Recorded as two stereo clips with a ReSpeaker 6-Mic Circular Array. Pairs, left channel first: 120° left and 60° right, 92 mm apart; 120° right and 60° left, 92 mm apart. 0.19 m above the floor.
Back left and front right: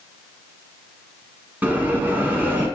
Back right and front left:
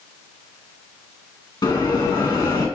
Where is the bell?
125° right, 1.4 m.